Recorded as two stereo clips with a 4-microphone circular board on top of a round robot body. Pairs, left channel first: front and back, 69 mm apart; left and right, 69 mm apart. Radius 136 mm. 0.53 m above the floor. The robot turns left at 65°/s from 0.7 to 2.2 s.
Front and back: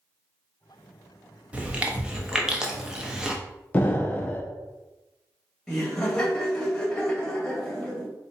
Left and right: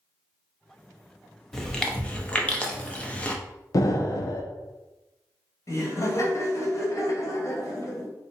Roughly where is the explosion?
Ahead left.